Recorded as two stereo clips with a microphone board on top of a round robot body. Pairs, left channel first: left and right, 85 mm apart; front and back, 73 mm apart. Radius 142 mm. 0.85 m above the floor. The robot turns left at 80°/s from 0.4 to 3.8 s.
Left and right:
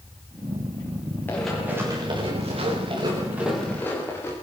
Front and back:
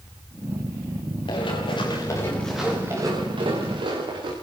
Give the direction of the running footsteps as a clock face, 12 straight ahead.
11 o'clock.